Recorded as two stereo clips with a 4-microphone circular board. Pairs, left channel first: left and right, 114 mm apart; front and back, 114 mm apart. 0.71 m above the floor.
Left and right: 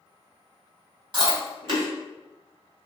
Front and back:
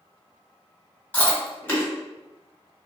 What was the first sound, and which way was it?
Chewing, 70° right.